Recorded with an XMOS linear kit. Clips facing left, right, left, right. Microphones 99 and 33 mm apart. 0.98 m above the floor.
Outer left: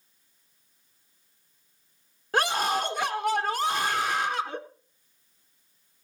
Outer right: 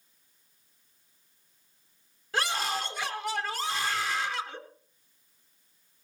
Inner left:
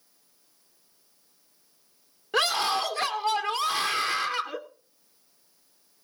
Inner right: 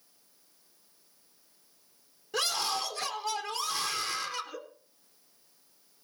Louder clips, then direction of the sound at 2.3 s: Outer left 5 dB, inner left 7 dB; 50° left (ahead or behind).